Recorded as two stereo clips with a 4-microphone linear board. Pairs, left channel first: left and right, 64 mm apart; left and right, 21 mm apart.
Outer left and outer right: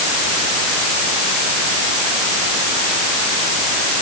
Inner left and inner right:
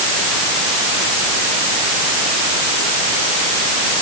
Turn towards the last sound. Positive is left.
No sound to turn to.